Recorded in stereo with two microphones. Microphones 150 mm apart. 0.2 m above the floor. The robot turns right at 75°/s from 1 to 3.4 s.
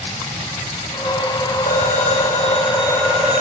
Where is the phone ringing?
65° left, 5 m; by 3.4 s 165° right, 5 m.